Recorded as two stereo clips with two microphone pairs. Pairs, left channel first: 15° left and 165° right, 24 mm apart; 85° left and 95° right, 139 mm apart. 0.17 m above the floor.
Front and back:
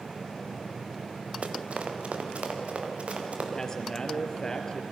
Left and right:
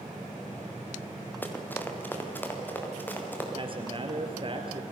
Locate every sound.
1.4 s running footsteps: 160° left, 3 m; by 3.5 s 165° left, 5 m
3.6 s a man speaking: 45° right, 3 m